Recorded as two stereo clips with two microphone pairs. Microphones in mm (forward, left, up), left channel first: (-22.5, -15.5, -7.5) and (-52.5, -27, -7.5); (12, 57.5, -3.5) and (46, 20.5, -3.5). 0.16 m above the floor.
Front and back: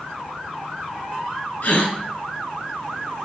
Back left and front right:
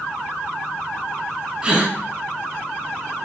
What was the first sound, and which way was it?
A gasp, 20° left.